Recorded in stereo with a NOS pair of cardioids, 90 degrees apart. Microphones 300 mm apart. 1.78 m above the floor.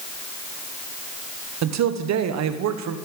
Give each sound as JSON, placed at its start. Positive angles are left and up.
{"t": 1.6, "sound": "a man speaking", "azimuth_deg": -65, "distance_m": 1.2}